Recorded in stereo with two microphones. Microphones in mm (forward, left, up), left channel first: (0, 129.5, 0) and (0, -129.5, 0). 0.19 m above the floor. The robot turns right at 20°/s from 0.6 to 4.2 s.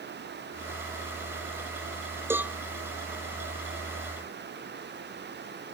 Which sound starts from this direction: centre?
A cowbell, at 2.3 s.